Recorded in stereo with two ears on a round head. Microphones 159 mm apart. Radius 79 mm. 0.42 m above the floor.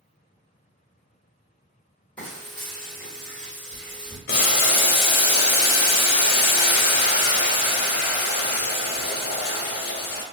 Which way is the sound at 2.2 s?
10° left (ahead or behind).